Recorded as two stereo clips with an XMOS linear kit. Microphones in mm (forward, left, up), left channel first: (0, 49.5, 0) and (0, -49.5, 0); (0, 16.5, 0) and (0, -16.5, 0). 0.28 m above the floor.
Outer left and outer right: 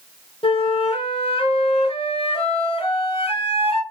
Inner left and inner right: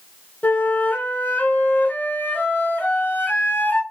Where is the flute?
75° left (ahead or behind), 0.9 m.